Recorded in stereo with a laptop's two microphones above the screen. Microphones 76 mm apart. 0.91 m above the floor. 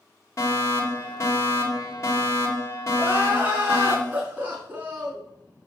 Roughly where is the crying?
Right.